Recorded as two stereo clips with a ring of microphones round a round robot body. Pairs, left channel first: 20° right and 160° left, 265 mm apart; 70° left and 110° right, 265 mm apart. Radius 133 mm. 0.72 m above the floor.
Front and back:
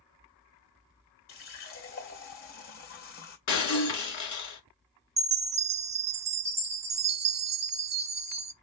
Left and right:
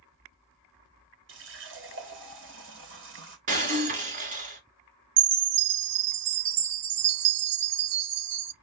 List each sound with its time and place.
1.3 s a running tap: 65° right, 2 m
3.5 s breaking glass: 50° right, 2 m
5.2 s a chime: 145° right, 0.7 m